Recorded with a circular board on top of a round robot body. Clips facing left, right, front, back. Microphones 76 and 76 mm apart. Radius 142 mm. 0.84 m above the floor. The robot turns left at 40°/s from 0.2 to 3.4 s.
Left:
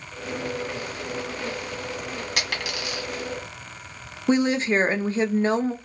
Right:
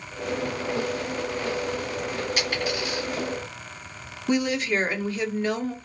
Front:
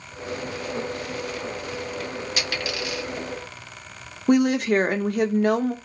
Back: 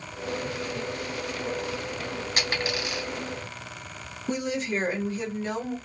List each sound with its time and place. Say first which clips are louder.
2.4 s a dropped coin: right 2 dB, back 2 dB; 130° left, 1.6 m; by 3.0 s 100° left, 1.6 m
4.3 s a woman speaking: left 3 dB, front 10 dB; 30° left, 0.8 m